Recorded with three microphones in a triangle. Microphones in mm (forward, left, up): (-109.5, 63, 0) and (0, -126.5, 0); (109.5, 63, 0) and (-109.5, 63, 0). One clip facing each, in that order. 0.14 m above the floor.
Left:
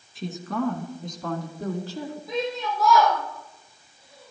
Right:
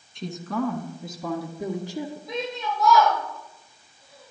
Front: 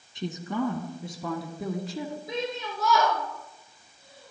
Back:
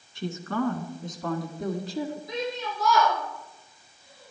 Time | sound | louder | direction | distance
0.1 | a woman speaking | even, back 1 dB | 40° left | 1.7 m
2.3 | a shout | left 6 dB, back 1 dB | 30° left | 5 m